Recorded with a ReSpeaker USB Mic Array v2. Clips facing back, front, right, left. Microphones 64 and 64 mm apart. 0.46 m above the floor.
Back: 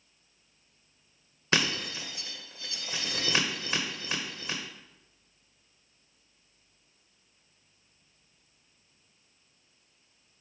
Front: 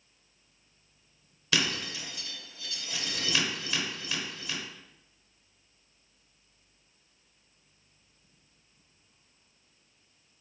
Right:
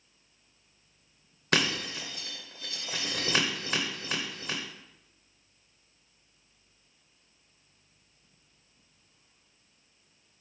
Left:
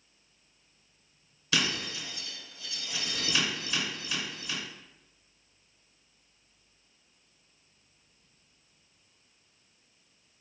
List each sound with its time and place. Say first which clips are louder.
1.5 s breaking glass: back 2 dB, right 3 dB; 130° right, 0.6 m